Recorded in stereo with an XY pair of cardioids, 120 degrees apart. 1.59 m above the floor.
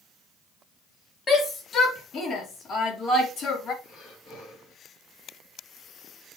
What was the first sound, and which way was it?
A shout, 40° left.